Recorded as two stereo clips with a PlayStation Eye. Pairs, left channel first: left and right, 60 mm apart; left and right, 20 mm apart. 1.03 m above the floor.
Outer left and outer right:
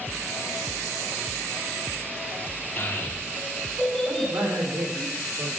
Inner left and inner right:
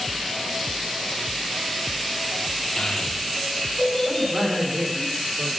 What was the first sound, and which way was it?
A child speaking, 45° left (ahead or behind).